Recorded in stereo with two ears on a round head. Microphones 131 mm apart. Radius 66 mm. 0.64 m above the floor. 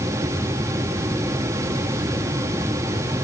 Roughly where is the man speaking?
I don't hear a man speaking.